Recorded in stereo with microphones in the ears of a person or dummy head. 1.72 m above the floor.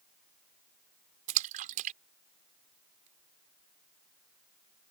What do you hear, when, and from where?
1.3 s a splash: 40° right (ahead or behind)